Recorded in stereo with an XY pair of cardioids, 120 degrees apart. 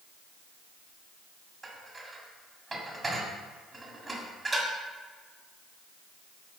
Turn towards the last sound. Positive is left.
turn(degrees=-25)